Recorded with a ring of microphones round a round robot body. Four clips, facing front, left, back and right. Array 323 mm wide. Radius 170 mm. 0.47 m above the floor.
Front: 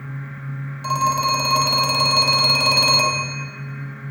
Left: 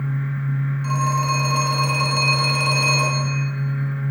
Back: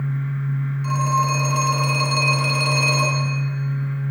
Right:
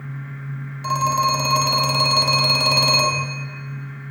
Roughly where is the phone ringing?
Ahead right.